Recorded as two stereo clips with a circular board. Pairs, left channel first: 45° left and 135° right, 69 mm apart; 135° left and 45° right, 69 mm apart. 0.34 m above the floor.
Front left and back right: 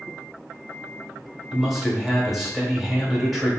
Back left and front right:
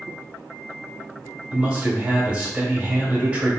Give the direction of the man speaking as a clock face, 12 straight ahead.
2 o'clock.